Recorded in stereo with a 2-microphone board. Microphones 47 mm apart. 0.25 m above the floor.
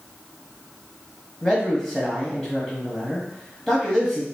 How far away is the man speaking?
About 1.1 m.